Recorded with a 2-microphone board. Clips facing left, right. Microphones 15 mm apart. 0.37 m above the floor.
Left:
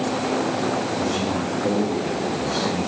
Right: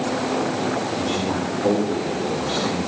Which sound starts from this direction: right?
A man speaking, at 1.0 s.